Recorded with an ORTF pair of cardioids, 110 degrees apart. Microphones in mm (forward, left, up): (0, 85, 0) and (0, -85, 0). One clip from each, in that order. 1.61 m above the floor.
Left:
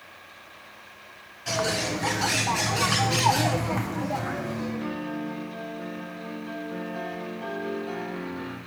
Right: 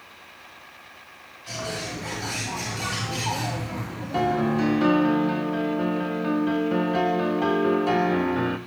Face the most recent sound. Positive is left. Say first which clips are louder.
# right 7 dB
turn(degrees=-60)